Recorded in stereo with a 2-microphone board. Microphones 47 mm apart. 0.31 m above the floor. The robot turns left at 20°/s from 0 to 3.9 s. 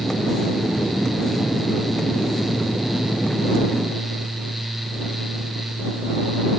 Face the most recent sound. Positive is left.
No sound to turn to.